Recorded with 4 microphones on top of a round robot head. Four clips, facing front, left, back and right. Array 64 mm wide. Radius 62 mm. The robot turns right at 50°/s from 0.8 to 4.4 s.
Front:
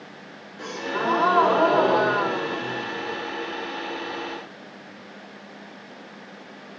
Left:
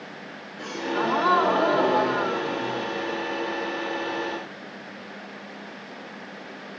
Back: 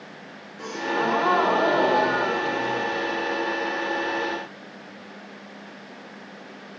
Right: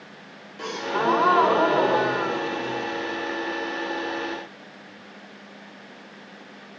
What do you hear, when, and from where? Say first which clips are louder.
0.6 s a gasp: right 2 dB, back 2 dB; 95° right, 2.5 m; by 3.2 s 25° left, 2.5 m